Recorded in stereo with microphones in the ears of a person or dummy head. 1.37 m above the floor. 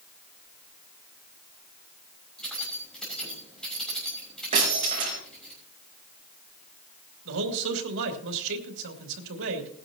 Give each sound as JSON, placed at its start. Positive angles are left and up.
{"t": 2.4, "sound": "keys jangling", "side_deg": 0, "distance_m": 6.5}
{"t": 4.5, "sound": "breaking glass", "side_deg": -35, "distance_m": 6.0}
{"t": 7.2, "sound": "a man speaking", "side_deg": -65, "distance_m": 3.0}